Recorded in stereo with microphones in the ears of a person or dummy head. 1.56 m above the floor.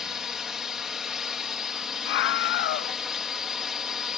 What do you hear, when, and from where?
0.0 s a drone: 5° right (ahead or behind)
2.0 s a scream: 70° left (ahead or behind)